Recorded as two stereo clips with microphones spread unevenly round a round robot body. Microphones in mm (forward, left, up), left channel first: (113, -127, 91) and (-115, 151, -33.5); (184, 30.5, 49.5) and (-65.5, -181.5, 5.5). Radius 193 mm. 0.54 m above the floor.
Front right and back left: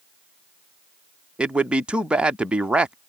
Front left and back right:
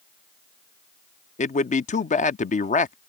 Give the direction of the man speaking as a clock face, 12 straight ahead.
9 o'clock.